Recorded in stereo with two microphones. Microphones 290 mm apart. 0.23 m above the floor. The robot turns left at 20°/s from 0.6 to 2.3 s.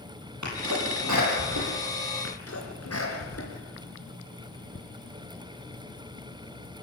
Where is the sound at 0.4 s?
75° right (ahead or behind), 9 m.